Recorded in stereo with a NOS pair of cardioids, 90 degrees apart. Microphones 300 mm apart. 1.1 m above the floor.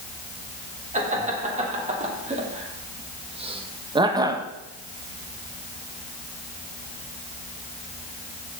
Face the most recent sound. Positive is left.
turn(degrees=-10)